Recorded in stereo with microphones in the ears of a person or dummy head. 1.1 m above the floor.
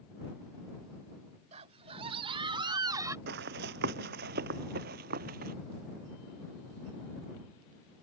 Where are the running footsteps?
60° right (ahead or behind); by 5.5 s 50° right (ahead or behind).